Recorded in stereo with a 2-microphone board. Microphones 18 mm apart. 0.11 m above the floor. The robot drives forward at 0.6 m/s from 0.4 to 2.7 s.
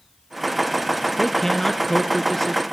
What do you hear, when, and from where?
1.2 s a man speaking: 20° left (ahead or behind), 1.1 m